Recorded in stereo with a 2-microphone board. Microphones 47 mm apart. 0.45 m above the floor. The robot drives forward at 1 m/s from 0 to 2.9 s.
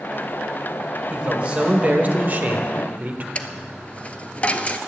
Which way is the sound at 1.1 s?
25° right (ahead or behind).